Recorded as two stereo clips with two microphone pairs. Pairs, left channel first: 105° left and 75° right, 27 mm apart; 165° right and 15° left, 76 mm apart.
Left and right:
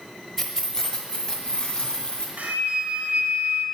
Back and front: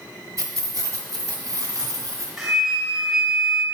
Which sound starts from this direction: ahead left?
Keys jangling, at 0.4 s.